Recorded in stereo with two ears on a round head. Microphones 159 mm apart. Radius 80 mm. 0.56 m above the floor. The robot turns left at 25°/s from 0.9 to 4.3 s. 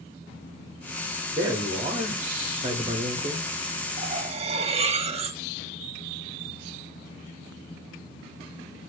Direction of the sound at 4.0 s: 40° right (ahead or behind).